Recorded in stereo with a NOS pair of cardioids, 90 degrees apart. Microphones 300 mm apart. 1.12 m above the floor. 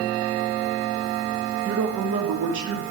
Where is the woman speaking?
65° right, 1.6 m.